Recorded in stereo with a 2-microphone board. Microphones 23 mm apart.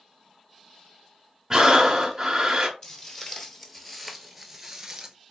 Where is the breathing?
20° right (ahead or behind), 0.9 m.